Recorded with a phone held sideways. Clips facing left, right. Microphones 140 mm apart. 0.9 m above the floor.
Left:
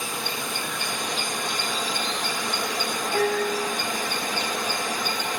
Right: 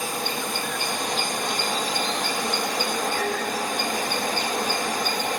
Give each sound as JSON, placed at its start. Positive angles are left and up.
{"t": 0.0, "sound": "a machine running", "side_deg": -45, "distance_m": 0.8}
{"t": 3.1, "sound": "a piano", "side_deg": 60, "distance_m": 1.1}